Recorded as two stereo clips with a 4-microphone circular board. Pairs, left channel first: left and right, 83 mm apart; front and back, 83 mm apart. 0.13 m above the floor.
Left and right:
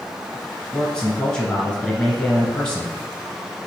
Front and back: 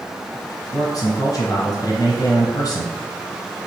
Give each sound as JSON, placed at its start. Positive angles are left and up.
{"t": 0.7, "sound": "a man speaking", "azimuth_deg": 15, "distance_m": 1.5}